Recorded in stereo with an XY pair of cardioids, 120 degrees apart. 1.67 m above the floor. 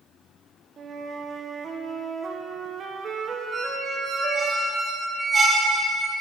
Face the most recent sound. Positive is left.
turn(degrees=-35)